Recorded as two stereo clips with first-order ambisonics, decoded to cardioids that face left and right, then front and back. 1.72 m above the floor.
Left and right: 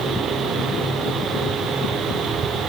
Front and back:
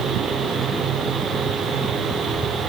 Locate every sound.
Only background noise.